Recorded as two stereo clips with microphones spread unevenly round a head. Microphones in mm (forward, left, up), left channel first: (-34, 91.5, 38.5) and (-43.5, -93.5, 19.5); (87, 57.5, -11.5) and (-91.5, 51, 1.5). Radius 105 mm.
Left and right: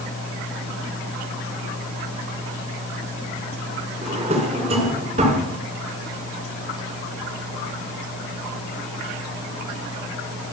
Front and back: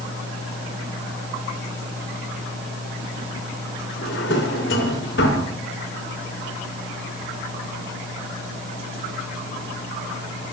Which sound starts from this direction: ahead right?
A drawer, at 4.0 s.